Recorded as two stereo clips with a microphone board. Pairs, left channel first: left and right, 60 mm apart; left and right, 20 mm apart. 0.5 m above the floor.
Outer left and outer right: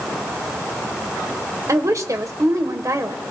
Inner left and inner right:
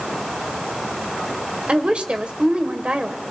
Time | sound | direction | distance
1.7 | a woman speaking | 65° right (ahead or behind) | 1.6 m